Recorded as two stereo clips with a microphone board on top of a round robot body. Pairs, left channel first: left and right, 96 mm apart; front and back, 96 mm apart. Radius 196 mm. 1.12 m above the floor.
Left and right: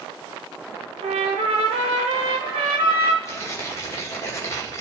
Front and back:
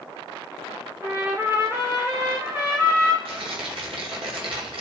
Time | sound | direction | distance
1.0 | a trumpet | 110° right | 1.0 m
3.2 | tearing paper | 150° left | 2.5 m